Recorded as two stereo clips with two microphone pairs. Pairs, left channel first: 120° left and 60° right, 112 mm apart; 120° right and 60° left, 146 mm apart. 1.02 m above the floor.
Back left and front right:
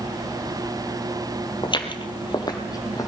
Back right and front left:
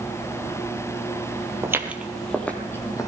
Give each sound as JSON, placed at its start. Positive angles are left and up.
{"t": 1.6, "sound": "footsteps", "azimuth_deg": 120, "distance_m": 1.3}